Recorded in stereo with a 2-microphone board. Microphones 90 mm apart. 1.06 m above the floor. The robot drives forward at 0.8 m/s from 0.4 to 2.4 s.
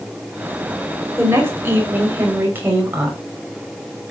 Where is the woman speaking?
30° right (ahead or behind), 5 m; by 3.2 s 25° right (ahead or behind), 6 m.